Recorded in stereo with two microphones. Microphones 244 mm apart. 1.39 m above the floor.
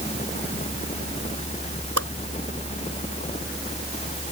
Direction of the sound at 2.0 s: 80° right.